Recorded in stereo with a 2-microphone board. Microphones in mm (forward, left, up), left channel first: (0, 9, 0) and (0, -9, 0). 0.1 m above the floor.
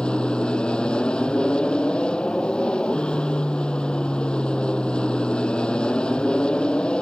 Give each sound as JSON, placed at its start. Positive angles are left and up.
{"t": 0.0, "sound": "an aircraft", "side_deg": 65}